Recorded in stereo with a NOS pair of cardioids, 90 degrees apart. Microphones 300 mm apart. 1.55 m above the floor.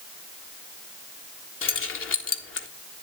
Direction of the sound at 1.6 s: 45° left.